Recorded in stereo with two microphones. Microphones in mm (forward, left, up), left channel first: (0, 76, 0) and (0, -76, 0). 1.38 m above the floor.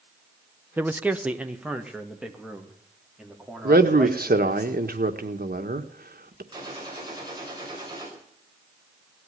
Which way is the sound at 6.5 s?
30° right (ahead or behind).